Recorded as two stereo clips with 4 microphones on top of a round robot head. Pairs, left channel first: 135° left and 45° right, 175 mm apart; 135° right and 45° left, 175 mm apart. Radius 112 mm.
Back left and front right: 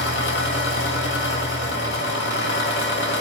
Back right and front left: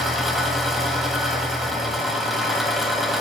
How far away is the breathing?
I don't hear breathing.